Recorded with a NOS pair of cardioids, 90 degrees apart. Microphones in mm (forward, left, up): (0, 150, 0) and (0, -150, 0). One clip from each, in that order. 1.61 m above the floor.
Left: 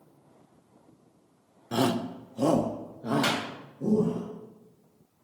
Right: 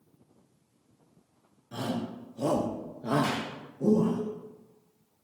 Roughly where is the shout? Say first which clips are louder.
Left 7 dB; left.